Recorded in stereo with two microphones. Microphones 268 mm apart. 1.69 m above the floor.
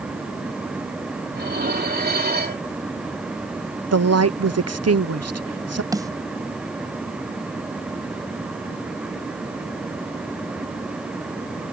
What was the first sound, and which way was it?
Dishes clattering, 35° right (ahead or behind).